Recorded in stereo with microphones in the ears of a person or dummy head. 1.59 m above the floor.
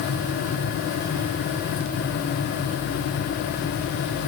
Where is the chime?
No chime in this recording.